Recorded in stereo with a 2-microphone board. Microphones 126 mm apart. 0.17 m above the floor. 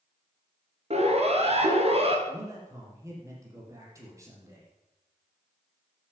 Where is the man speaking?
25° right (ahead or behind), 6.5 m.